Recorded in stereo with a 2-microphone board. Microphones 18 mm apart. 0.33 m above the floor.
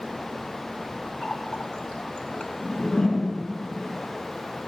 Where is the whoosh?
65° left (ahead or behind), 4 m.